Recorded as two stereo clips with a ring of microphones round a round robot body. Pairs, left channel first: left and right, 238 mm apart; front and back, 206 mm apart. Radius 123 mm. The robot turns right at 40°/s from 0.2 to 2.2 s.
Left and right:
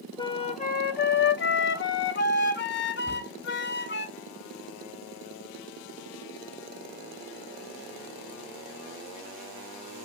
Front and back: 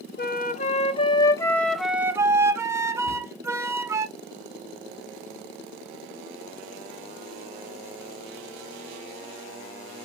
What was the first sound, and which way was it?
A flute, 25° left.